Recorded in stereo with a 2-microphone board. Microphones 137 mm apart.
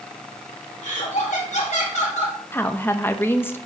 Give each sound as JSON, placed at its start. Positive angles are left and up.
{"t": 0.8, "sound": "laughter", "side_deg": 65, "distance_m": 2.5}
{"t": 2.5, "sound": "a woman speaking", "side_deg": 15, "distance_m": 0.7}